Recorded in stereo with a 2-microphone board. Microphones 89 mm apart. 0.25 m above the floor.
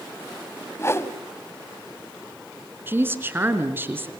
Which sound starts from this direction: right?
A woman speaking, at 2.9 s.